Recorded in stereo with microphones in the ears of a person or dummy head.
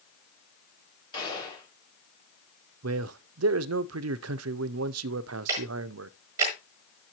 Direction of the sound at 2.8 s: 80° right.